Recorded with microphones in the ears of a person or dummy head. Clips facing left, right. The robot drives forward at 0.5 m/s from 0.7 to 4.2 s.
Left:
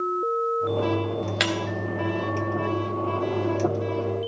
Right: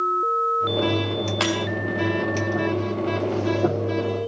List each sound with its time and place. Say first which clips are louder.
1.4 s breaking glass: right 4 dB; 20° left (ahead or behind), 1.3 m